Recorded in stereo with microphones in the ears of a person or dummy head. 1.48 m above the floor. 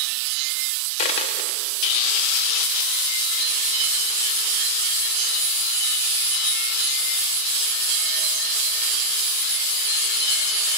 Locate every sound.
1.0 s a dropped coin: 35° left (ahead or behind), 1.0 m